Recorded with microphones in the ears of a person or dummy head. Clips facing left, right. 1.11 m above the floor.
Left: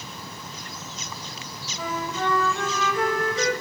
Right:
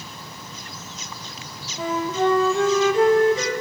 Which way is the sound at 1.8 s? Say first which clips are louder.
Right 7 dB; 25° right (ahead or behind).